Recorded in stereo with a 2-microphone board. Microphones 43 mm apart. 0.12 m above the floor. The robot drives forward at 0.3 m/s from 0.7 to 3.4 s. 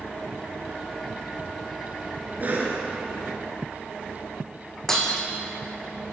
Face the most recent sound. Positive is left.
turn(degrees=10)  # may be behind; listen again after turning